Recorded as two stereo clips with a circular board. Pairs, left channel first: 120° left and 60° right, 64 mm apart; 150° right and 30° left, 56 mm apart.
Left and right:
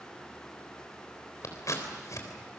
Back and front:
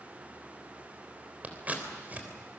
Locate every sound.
1.4 s scissors: 90° left, 3.5 m